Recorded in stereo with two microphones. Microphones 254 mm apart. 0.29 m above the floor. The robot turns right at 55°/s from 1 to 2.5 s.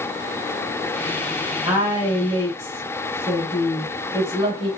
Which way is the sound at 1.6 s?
5° right (ahead or behind).